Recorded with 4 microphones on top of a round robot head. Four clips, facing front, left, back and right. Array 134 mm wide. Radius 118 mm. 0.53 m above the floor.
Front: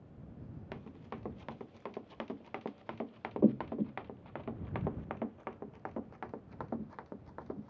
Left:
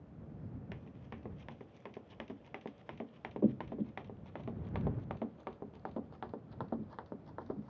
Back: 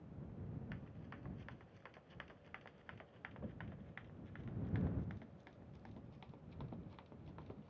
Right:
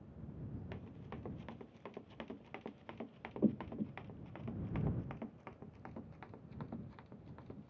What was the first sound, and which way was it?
Running footsteps, 5° right.